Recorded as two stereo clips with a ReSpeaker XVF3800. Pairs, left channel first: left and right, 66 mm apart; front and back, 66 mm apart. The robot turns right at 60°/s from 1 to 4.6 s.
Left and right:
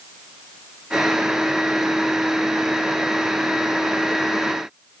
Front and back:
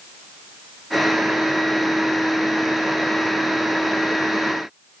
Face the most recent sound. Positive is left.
No sound to turn to.